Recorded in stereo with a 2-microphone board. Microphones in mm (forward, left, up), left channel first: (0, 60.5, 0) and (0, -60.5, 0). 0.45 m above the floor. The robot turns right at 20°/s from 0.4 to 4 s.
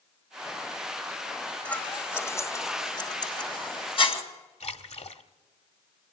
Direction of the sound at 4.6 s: 65° left (ahead or behind).